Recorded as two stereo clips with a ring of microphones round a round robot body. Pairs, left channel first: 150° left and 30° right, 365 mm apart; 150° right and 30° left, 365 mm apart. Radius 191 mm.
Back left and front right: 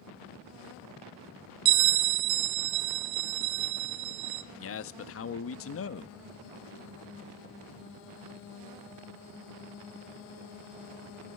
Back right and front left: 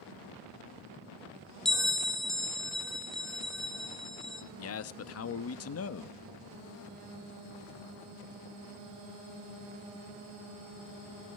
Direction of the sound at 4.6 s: 175° right.